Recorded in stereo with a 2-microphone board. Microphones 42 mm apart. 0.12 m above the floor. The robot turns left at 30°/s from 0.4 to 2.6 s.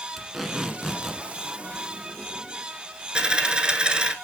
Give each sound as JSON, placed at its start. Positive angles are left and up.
{"t": 0.2, "sound": "tape being pulled", "side_deg": -5, "distance_m": 1.2}
{"t": 3.1, "sound": "a dropped coin", "side_deg": -25, "distance_m": 0.7}